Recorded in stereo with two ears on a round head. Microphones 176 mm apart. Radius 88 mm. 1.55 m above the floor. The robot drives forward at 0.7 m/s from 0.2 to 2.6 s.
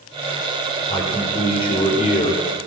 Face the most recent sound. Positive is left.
turn(degrees=35)  # may be behind; listen again after turning